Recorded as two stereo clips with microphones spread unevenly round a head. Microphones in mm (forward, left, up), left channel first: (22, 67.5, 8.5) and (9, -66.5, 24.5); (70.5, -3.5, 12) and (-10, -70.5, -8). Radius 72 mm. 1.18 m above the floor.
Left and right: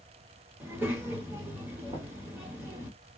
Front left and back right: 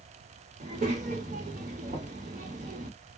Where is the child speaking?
170° right, 1.0 m.